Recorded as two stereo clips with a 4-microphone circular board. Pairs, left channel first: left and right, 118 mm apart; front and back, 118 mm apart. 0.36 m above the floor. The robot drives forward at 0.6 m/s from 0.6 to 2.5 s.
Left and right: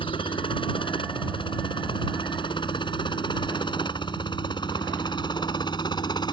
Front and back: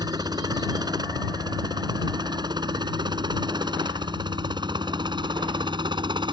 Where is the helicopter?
130° left; by 6.3 s 135° left.